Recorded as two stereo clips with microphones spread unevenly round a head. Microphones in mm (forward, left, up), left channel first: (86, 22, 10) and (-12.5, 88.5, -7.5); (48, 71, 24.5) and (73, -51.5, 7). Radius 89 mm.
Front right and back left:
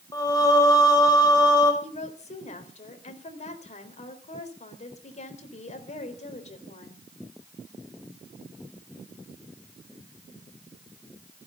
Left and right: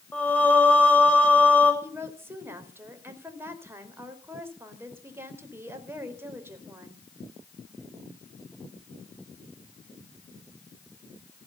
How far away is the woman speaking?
About 3.5 m.